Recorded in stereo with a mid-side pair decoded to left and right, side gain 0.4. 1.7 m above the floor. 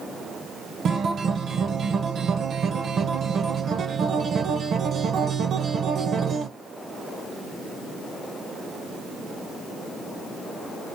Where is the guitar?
60° right, 0.8 m.